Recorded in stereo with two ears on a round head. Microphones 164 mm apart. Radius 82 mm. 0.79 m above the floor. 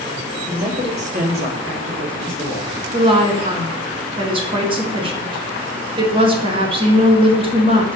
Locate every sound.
0.5 s a man speaking: 15° right (ahead or behind), 1.2 m; by 2.7 s 75° right (ahead or behind), 2 m
2.9 s a woman speaking: 30° right (ahead or behind), 1.2 m